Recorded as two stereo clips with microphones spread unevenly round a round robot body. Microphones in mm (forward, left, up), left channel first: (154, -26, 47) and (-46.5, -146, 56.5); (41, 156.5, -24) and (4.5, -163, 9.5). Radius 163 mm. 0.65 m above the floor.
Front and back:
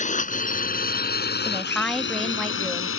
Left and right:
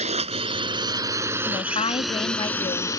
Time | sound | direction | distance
0.0 | a drone | 25° right | ?
1.4 | a woman speaking | 110° left | ?